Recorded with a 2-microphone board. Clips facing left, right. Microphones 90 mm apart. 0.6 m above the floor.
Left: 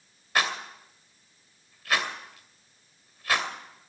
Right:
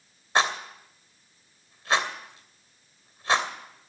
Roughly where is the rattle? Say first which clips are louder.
Right 3 dB; right.